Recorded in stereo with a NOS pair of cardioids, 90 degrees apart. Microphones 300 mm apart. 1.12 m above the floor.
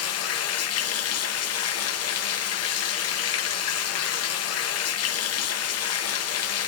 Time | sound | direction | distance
0.0 | running water | 55° left | 0.8 m